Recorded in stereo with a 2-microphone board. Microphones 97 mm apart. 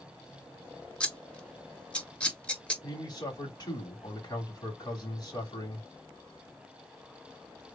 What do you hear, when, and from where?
1.0 s scissors: 10° left (ahead or behind), 1.2 m
2.8 s a man speaking: 45° left (ahead or behind), 3 m